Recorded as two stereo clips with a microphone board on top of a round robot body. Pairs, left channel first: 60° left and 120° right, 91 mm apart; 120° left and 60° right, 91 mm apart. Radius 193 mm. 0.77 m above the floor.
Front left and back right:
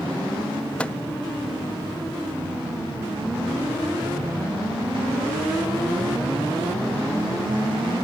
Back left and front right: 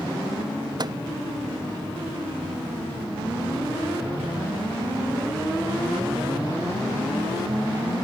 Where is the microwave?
20° right.